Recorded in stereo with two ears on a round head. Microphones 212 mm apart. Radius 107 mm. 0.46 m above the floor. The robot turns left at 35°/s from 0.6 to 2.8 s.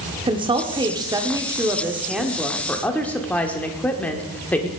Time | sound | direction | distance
0.3 | a woman speaking | 20° right (ahead or behind) | 1.2 m